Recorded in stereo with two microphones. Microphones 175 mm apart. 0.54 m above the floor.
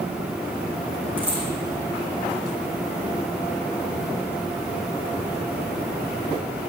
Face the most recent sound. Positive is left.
turn(degrees=-10)  # may be behind; listen again after turning